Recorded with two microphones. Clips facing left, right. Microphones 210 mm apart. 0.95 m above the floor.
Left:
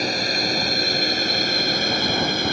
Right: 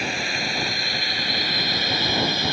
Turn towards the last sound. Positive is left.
turn(degrees=55)  # may be behind; listen again after turning